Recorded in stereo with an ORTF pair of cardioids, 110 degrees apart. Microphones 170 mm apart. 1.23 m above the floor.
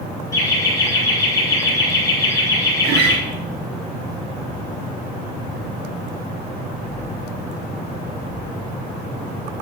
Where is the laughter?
20° left, 4.5 m.